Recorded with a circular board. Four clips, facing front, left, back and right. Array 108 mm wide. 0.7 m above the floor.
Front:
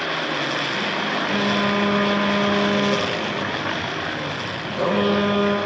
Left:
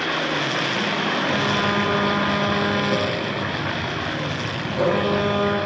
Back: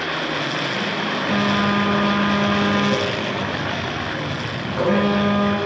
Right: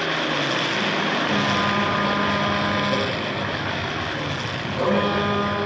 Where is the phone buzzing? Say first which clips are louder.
Even, back 3 dB; straight behind, 6 m.